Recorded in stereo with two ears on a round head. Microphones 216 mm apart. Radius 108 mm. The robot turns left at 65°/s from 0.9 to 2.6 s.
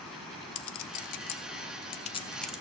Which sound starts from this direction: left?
A clink, at 0.6 s.